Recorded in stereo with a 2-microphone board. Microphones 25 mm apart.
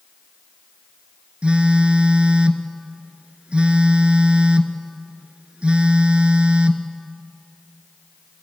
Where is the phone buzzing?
50° right (ahead or behind), 1.2 m.